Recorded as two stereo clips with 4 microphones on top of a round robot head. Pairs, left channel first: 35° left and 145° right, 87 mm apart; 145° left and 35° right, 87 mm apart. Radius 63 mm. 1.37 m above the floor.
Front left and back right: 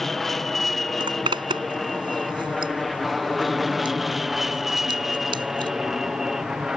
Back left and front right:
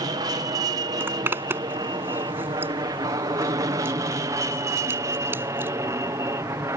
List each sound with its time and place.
0.0 s an aircraft: 50° right; by 6.8 s 60° right
1.0 s a zipper: 105° right